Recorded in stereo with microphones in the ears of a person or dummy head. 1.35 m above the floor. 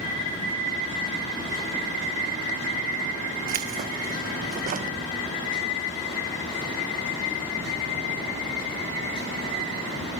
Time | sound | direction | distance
3.5 | keys jangling | 40° right (ahead or behind) | 0.9 m